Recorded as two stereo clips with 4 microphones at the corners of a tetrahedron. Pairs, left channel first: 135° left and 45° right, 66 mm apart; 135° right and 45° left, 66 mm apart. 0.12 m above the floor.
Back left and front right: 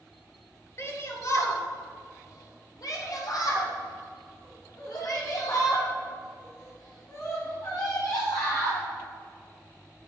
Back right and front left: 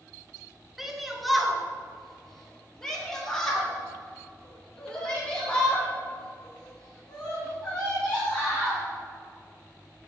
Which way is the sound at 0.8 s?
130° left.